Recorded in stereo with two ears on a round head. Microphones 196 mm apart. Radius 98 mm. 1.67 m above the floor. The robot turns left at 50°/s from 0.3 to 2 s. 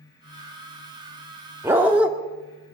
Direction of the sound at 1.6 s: 10° right (ahead or behind).